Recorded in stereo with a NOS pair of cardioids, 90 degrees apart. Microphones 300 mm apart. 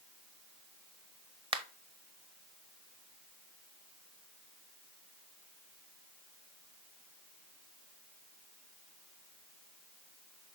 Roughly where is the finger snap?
Ahead.